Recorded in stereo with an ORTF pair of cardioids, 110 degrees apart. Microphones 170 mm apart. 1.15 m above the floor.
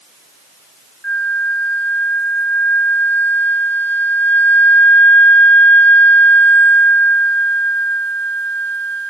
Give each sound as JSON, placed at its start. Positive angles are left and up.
{"t": 1.0, "sound": "a flute", "azimuth_deg": 10, "distance_m": 0.9}